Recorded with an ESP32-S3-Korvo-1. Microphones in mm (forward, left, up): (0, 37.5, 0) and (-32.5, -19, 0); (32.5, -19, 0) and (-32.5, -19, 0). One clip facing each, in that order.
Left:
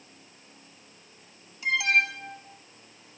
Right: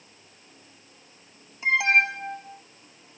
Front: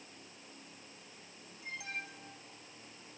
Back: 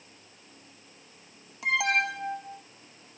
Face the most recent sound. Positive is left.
turn(degrees=180)